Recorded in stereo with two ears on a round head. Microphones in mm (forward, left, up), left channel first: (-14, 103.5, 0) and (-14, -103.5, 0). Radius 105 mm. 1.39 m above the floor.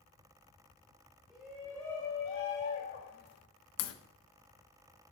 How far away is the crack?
About 1.3 m.